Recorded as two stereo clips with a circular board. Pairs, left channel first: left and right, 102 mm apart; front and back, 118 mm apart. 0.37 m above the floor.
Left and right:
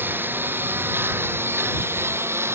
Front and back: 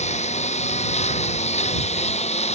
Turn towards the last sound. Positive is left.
turn(degrees=-25)